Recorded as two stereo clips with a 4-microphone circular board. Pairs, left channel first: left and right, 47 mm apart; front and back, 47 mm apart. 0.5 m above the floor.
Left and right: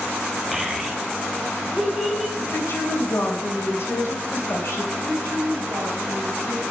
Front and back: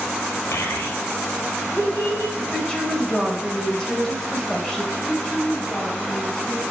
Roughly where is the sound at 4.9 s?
Right.